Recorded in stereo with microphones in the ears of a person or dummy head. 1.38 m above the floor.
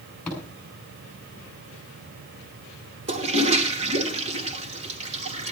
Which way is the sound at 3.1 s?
40° right (ahead or behind).